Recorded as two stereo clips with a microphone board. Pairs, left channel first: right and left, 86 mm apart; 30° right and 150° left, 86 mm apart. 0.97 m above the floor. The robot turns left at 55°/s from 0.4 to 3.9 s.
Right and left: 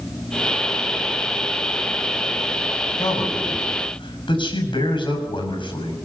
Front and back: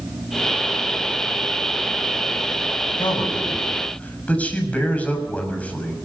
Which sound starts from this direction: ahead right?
A man speaking, at 3.0 s.